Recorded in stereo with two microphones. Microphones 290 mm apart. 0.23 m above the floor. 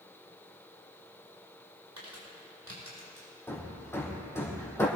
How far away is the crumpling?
About 6.5 m.